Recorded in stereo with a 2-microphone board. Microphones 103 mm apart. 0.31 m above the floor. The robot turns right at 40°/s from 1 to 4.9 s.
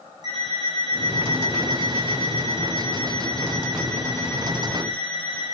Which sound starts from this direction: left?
An alarm clock, at 0.2 s.